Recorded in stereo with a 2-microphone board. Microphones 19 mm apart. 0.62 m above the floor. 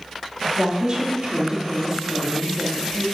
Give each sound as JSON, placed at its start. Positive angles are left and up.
{"t": 0.6, "sound": "a woman speaking", "side_deg": -40, "distance_m": 1.1}